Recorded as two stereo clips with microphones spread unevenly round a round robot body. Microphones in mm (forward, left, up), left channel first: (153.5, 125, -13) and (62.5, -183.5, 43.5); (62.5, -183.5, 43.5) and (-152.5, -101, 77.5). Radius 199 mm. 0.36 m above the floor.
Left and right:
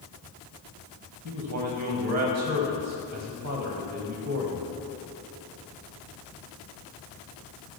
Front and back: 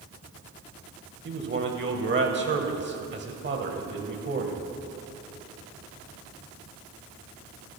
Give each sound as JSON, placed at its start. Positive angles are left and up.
{"t": 1.2, "sound": "a man speaking", "azimuth_deg": -160, "distance_m": 2.0}